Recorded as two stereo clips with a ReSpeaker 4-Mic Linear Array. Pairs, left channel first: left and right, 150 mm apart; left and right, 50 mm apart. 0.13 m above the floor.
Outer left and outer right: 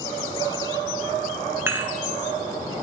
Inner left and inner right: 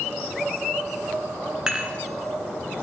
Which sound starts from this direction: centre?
Dishes clattering, at 1.7 s.